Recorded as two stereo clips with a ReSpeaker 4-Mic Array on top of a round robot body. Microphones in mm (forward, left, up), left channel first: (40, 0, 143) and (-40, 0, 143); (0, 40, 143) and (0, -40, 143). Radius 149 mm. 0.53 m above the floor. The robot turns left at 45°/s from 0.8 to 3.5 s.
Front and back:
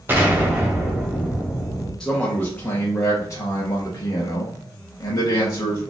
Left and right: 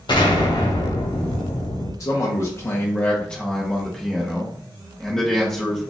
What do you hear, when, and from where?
0.1 s an explosion: 115° left, 1.2 m; by 1.9 s 65° left, 1.2 m
2.0 s a man speaking: 80° left, 1.0 m; by 5.9 s 10° left, 1.0 m